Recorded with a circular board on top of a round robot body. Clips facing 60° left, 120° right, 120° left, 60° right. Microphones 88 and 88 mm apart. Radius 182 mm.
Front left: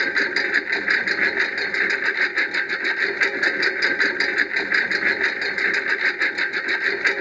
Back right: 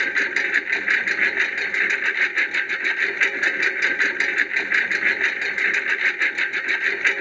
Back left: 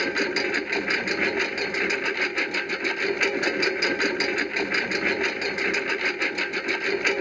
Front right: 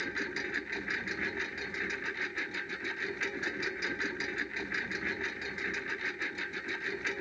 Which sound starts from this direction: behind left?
A lawn mower, at 0.0 s.